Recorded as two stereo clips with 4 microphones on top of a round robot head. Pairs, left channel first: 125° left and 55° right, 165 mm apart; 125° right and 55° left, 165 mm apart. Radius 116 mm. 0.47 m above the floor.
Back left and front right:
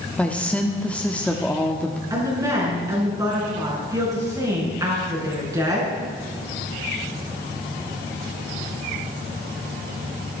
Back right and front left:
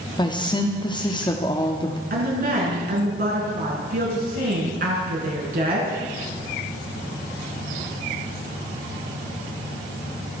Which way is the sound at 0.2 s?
160° right.